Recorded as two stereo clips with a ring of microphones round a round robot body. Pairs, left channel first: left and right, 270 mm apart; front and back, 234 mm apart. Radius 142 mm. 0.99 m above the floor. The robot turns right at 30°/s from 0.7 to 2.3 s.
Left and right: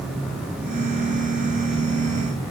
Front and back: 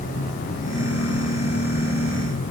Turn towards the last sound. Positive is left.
No sound to turn to.